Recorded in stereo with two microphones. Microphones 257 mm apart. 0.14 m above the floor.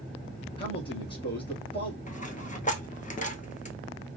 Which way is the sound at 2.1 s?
30° left (ahead or behind).